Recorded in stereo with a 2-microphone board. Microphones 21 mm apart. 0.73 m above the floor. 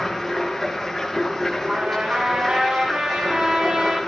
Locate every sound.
0.0 s running water: 5° left (ahead or behind), 9 m
1.7 s a trumpet: 75° right (ahead or behind), 5.5 m